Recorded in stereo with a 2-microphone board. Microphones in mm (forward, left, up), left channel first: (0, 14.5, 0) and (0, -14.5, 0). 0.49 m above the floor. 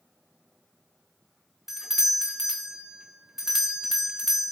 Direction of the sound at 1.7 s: 15° right (ahead or behind).